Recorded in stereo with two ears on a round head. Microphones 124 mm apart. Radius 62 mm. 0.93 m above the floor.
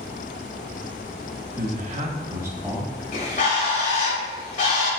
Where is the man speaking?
70° right (ahead or behind), 1.3 m; by 3.0 s 5° right (ahead or behind), 2.5 m.